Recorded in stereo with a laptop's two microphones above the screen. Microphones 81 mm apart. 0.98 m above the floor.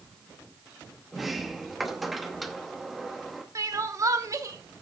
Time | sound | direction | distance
1.1 | a sliding door | centre (ahead or behind) | 0.7 m
3.5 | crying | 40° right (ahead or behind) | 1.0 m